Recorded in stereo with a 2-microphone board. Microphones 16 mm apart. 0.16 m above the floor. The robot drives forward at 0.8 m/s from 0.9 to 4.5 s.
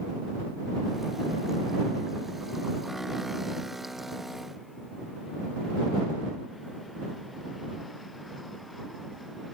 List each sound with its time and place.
Only background noise.